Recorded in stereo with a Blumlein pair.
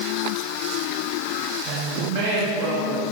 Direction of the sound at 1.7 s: 50° right.